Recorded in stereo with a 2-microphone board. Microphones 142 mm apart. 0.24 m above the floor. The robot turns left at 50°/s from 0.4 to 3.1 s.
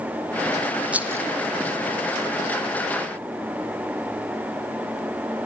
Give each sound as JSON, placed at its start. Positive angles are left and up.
{"t": 0.9, "sound": "a rattle", "side_deg": -10, "distance_m": 1.6}